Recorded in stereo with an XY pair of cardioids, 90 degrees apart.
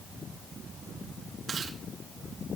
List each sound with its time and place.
1.5 s chewing: 60° right, 3.5 m